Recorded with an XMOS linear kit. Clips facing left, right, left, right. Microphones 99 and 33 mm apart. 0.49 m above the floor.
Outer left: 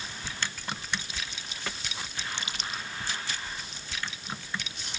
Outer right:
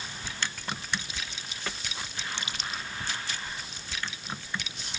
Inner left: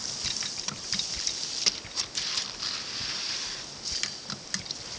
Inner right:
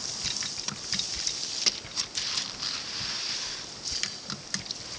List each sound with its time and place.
Only background noise.